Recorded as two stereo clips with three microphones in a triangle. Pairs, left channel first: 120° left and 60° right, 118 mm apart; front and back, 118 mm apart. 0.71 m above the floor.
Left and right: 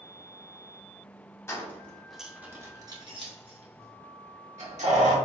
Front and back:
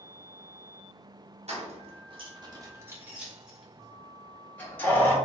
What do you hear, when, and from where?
1.5 s keys jangling: 175° right, 0.9 m; by 5.2 s 70° right, 1.6 m